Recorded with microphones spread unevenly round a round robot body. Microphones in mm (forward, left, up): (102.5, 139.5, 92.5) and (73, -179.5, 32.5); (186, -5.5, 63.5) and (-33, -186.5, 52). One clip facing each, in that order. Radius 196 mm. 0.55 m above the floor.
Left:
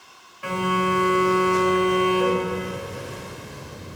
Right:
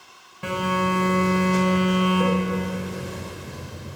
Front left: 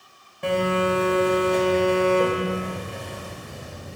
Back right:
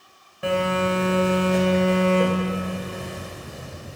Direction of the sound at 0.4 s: 55° right.